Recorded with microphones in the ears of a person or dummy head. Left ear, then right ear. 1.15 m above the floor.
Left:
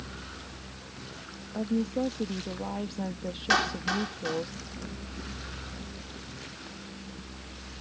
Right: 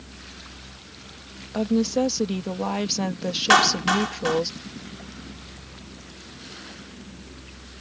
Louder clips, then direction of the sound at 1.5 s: Right 8 dB; 60° right (ahead or behind).